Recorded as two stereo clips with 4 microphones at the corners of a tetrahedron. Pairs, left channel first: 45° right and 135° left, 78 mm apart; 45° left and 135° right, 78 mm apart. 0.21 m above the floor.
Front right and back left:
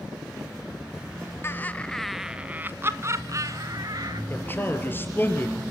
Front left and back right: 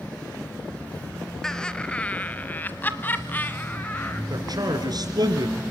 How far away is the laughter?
About 1.1 m.